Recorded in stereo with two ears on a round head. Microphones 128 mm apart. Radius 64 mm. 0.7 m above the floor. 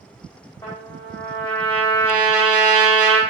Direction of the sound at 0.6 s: 20° left (ahead or behind).